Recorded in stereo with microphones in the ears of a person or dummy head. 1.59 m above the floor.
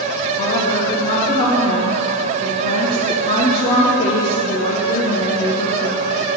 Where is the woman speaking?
30° left (ahead or behind), 1.4 m.